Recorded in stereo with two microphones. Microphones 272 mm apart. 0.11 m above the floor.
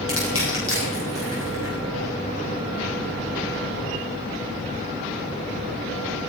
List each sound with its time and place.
0.1 s crushing: 50° left (ahead or behind), 9.5 m